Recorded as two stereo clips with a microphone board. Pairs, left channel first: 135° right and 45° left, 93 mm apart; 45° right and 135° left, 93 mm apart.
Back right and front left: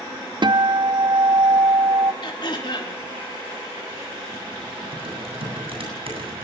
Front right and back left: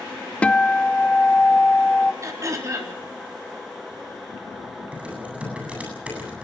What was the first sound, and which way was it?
A guitar, 30° left.